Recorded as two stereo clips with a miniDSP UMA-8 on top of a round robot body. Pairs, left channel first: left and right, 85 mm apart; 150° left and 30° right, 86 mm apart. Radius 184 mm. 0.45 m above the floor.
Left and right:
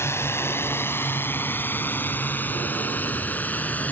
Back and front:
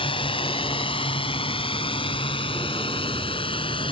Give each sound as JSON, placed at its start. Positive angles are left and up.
{"t": 0.0, "sound": "a drone", "azimuth_deg": 150}